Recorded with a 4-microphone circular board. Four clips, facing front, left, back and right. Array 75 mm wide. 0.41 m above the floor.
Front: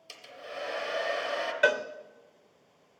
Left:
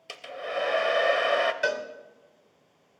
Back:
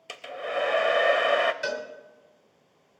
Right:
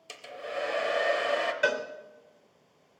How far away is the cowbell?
About 0.9 m.